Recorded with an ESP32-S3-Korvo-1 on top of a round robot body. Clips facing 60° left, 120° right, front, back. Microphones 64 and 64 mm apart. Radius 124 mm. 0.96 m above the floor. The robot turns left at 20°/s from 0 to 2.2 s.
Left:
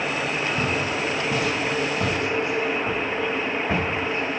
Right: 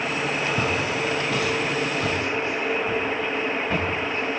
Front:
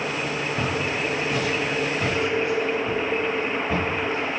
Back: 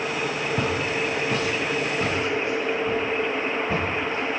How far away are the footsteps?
About 1.2 m.